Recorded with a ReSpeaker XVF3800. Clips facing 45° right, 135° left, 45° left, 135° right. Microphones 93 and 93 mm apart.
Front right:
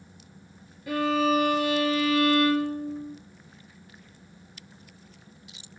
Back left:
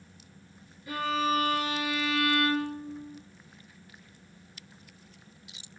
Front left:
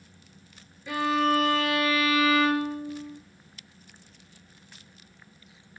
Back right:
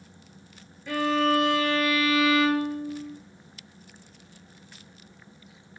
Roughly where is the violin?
Ahead right.